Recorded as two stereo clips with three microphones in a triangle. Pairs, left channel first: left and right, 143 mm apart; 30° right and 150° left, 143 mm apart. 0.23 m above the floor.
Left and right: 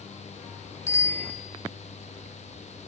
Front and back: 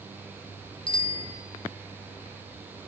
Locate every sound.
0.9 s a bicycle bell: 20° left, 3 m